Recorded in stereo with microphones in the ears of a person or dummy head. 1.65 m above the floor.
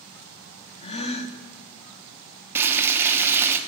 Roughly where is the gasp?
Left.